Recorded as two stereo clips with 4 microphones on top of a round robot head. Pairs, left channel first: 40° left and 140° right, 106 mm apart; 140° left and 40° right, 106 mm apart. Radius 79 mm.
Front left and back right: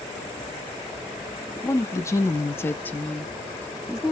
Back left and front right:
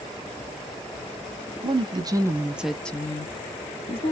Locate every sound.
1.6 s a woman speaking: 20° right, 0.9 m; by 4.1 s 135° left, 1.0 m